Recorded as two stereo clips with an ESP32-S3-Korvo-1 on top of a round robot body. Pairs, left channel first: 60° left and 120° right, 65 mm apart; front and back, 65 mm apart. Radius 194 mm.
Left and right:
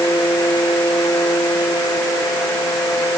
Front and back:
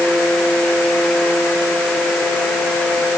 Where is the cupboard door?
I don't hear a cupboard door.